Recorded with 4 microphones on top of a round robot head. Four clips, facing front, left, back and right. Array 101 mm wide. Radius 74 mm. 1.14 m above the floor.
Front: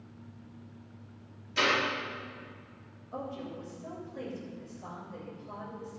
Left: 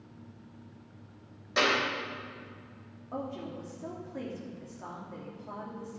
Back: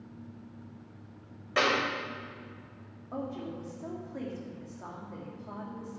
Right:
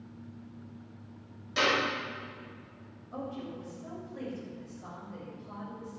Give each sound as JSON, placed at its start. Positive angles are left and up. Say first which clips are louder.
{"t": 1.6, "sound": "a clap", "louder": "left 1 dB, back 2 dB", "azimuth_deg": 155, "distance_m": 4.0}
{"t": 3.1, "sound": "a woman speaking", "louder": "left 1 dB, back 2 dB", "azimuth_deg": 140, "distance_m": 3.0}